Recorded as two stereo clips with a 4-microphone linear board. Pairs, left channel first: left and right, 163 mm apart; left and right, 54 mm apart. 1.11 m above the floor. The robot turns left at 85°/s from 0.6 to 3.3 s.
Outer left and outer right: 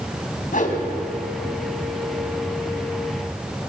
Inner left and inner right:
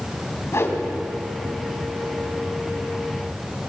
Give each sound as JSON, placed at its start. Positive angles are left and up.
{"t": 0.5, "sound": "a whoosh", "side_deg": 55, "distance_m": 3.0}